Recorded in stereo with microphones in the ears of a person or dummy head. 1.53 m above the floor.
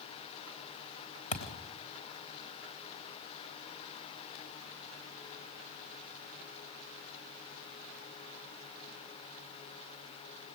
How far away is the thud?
About 3.5 m.